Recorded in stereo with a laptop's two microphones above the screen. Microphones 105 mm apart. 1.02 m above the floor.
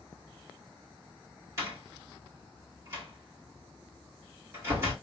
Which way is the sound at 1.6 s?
30° right (ahead or behind).